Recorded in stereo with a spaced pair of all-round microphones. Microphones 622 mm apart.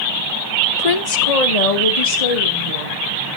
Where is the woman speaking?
80° left, 0.8 m; by 3.0 s 65° left (ahead or behind), 3 m.